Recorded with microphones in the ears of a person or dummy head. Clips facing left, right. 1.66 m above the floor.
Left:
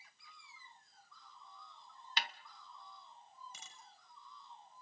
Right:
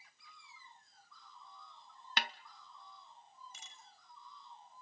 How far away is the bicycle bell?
About 6 m.